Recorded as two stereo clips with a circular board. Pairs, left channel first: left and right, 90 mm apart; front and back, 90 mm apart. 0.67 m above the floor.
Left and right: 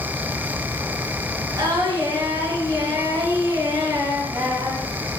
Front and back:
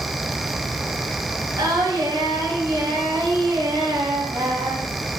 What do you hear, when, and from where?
1.6 s singing: 140° right, 1.5 m